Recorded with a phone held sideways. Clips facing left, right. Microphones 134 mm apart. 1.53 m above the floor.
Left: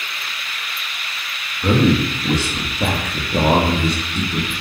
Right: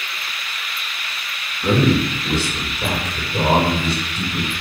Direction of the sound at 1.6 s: 10° left (ahead or behind).